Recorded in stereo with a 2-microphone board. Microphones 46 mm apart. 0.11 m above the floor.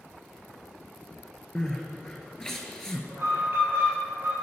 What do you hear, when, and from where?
1.6 s crying: 15° left (ahead or behind), 0.8 m
3.1 s an alarm: 60° right (ahead or behind), 2.5 m